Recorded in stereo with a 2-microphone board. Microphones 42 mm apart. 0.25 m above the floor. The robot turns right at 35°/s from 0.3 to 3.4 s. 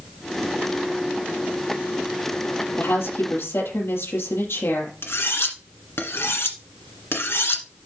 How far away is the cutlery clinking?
About 1.6 m.